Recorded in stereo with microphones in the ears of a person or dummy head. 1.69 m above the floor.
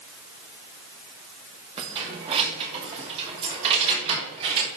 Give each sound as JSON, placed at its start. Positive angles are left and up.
{"t": 1.8, "sound": "keys jangling", "side_deg": -30, "distance_m": 2.5}